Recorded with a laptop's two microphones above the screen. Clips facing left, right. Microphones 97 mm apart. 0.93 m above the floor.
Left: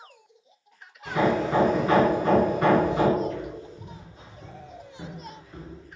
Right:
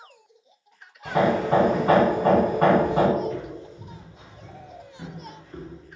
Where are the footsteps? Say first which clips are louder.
Right 1 dB; 55° left (ahead or behind), 1.7 m; by 5.8 s 5° right (ahead or behind), 1.4 m.